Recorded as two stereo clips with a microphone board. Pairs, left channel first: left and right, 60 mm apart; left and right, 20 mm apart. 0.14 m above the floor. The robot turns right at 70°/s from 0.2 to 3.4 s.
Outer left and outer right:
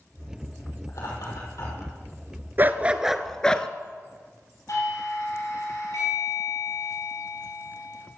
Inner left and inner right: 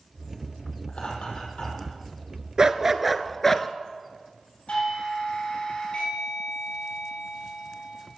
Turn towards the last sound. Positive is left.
turn(degrees=65)  # may be behind; listen again after turning